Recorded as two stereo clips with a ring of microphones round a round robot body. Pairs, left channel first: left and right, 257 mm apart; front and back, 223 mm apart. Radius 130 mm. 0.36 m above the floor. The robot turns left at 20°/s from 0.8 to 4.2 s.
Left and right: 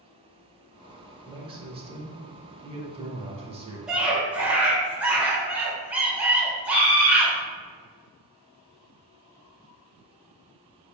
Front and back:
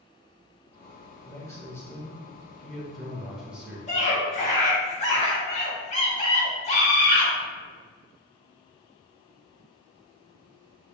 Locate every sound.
1.3 s a man speaking: 55° right, 0.9 m; by 3.8 s 105° right, 0.9 m
3.9 s a scream: 5° right, 1.4 m; by 7.3 s 10° right, 1.4 m